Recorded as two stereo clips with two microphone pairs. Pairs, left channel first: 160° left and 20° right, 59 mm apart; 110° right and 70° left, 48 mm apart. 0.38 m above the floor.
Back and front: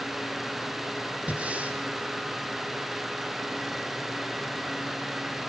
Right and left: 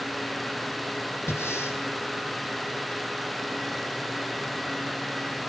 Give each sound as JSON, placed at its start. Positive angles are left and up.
{"t": 1.3, "sound": "breathing", "azimuth_deg": -85, "distance_m": 4.0}